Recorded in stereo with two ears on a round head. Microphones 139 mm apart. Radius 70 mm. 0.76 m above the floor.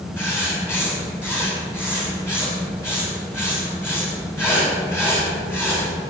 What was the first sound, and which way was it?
Writing, 15° left (ahead or behind).